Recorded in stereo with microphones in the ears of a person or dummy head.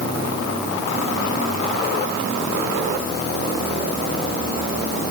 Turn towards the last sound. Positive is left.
No sound to turn to.